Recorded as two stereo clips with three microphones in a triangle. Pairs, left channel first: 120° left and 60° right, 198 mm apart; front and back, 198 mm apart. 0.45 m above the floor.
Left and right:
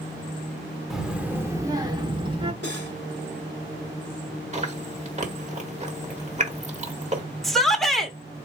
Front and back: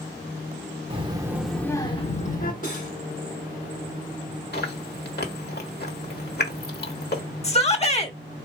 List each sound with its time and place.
0.9 s a child speaking: 145° right, 0.9 m; by 2.5 s 5° right, 1.0 m
2.6 s cutlery clinking: 45° right, 1.7 m
4.5 s chewing: 15° right, 1.3 m
7.4 s a shout: 30° left, 1.0 m